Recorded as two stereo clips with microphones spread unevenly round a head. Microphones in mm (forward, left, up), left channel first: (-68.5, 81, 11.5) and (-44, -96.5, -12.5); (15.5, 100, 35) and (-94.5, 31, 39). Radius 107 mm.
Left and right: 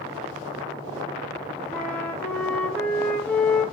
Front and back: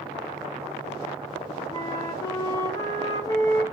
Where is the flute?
45° left, 0.7 m.